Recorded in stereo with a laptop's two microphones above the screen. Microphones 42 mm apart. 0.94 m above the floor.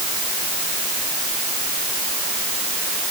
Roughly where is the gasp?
No gasp in this recording.